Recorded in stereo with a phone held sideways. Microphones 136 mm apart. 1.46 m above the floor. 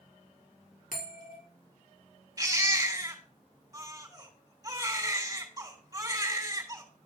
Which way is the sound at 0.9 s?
80° left.